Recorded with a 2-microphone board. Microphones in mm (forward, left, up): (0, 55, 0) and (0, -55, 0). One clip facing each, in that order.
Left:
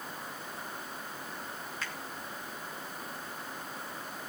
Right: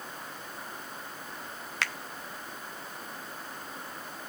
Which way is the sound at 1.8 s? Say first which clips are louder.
Right 8 dB; 80° right.